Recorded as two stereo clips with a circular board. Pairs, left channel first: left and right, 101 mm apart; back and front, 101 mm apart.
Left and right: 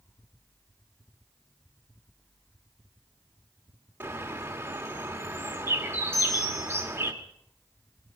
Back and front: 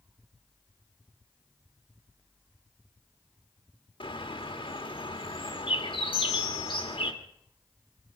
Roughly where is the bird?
Behind right.